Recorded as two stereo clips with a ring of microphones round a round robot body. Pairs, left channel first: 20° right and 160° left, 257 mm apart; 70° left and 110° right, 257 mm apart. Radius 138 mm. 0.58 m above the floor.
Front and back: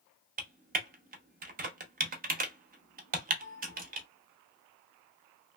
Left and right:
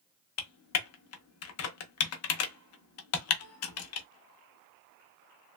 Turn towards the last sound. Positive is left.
turn(degrees=100)